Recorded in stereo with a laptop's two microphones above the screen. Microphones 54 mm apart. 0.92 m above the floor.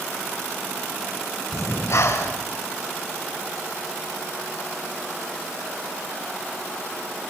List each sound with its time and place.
1.5 s breathing: 65° left (ahead or behind), 3.5 m